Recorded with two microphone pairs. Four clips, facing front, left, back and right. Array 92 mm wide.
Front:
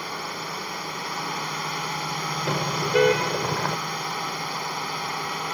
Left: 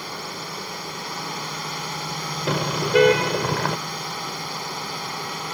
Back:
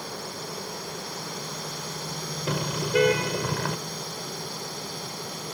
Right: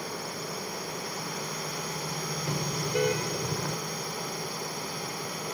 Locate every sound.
0.0 s a drone: 35° left
2.5 s a car horn: 70° left